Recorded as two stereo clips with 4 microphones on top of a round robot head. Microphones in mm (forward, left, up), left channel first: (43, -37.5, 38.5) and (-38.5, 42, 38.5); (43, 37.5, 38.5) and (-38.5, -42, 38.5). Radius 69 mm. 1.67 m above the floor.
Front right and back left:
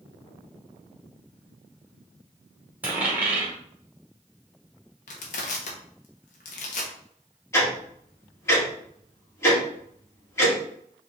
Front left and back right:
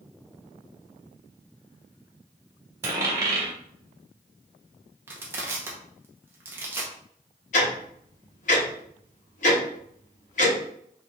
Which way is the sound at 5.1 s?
65° right.